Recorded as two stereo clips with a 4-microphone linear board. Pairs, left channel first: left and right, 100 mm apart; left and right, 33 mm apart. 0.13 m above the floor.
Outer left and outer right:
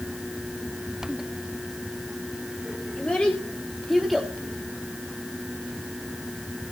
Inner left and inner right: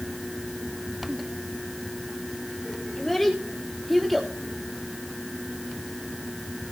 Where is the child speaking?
10° left (ahead or behind), 7 m; by 4.3 s 5° right (ahead or behind), 6.5 m.